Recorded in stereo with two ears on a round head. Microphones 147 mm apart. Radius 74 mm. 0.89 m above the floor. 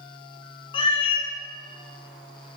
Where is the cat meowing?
30° left (ahead or behind), 0.6 m.